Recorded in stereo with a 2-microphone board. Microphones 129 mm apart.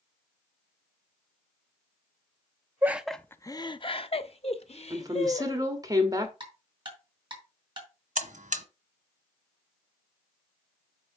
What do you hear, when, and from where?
2.8 s laughter: 15° right (ahead or behind), 0.6 m; by 5.7 s 55° left (ahead or behind), 2 m
4.9 s a woman speaking: 30° right (ahead or behind), 2.0 m
6.4 s ticking: 40° right (ahead or behind), 4 m
8.2 s a buzzer: 75° right (ahead or behind), 1.1 m